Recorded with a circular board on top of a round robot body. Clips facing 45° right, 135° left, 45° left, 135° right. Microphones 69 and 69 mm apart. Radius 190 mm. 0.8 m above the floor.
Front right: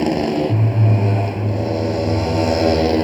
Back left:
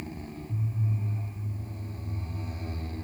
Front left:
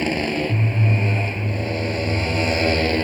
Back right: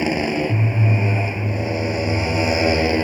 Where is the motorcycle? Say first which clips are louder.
Front right 23 dB, back right 2 dB; 55° right.